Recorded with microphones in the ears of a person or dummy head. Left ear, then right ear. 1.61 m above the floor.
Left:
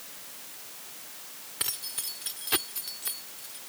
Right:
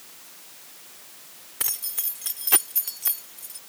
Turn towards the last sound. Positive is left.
turn(degrees=-30)  # may be behind; listen again after turning